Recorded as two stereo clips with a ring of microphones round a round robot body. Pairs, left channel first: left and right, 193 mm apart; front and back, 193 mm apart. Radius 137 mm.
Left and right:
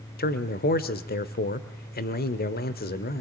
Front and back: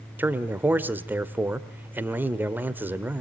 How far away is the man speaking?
About 1.3 m.